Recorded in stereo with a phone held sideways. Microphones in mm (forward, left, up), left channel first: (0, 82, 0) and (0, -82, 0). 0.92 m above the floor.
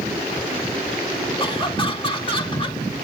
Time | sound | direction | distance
1.4 | laughter | 30° left (ahead or behind) | 1.9 m